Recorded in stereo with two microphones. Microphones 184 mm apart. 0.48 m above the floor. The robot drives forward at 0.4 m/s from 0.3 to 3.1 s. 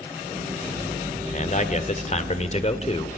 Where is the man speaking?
45° left (ahead or behind), 1.7 m; by 3.2 s 35° left (ahead or behind), 2 m.